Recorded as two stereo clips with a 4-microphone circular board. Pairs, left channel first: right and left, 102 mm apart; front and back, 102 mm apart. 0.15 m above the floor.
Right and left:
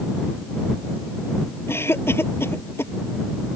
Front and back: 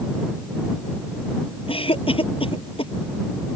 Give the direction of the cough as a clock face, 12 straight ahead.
1 o'clock.